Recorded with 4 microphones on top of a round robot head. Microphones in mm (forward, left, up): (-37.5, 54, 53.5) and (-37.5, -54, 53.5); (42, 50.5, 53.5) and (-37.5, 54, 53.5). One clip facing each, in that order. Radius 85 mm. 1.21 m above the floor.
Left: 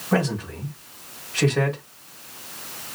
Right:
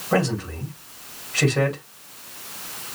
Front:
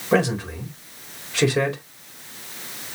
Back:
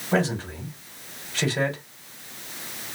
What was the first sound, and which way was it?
A man speaking, 10° right.